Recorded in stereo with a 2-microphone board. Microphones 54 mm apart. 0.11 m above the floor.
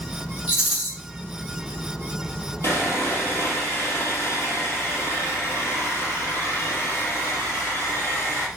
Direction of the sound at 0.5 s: 15° right (ahead or behind).